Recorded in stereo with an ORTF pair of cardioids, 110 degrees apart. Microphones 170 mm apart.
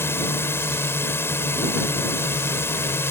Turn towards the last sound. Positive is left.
turn(degrees=15)